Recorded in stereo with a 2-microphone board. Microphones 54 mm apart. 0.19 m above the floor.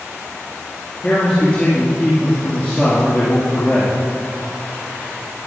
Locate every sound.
1.0 s a man speaking: 25° left (ahead or behind), 4.5 m